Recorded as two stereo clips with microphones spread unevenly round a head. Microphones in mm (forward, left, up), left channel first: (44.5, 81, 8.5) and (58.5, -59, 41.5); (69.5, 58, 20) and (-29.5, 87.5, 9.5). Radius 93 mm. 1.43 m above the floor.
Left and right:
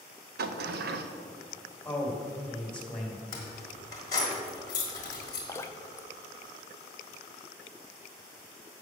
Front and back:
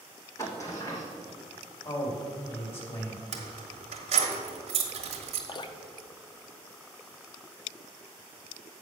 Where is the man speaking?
10° left, 2.5 m.